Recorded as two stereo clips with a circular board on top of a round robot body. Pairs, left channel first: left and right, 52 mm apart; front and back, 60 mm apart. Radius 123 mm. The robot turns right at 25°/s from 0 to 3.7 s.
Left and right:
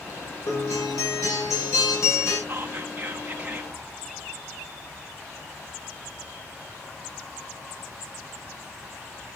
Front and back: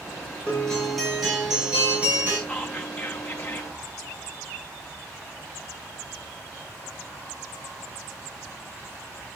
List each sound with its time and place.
0.5 s a guitar: 75° left, 5.5 m; by 2.4 s 125° left, 5.5 m
2.5 s whispering: 55° right, 1.1 m; by 3.8 s 25° right, 1.1 m